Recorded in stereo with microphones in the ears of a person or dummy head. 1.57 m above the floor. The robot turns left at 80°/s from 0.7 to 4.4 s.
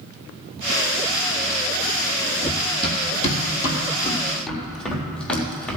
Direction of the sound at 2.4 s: 30° left (ahead or behind).